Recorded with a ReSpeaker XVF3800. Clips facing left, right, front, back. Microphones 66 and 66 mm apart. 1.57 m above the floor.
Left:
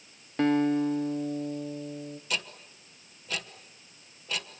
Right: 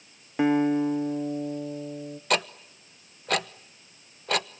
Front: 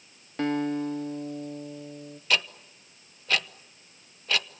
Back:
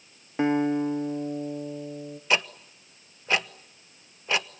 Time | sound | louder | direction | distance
0.4 | a guitar | right 2 dB, back 4 dB | 140° right | 1.0 m
2.3 | ticking | right 11 dB, back 2 dB | 110° right | 0.9 m